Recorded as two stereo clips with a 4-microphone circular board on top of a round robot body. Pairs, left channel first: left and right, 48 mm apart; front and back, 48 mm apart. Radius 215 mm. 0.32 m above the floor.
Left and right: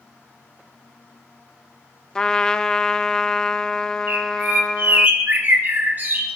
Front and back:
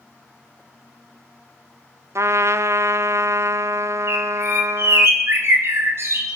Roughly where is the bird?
Behind right.